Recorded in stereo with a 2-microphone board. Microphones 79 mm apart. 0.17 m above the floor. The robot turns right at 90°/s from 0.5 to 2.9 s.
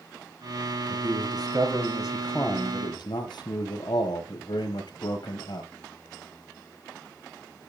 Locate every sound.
0.9 s a man speaking: 115° right, 5 m; by 5.7 s 65° left, 5 m